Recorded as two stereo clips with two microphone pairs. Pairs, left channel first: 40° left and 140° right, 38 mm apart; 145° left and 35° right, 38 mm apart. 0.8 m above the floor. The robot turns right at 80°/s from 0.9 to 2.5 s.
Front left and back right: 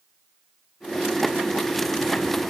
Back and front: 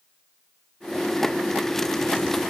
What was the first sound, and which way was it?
Only background noise.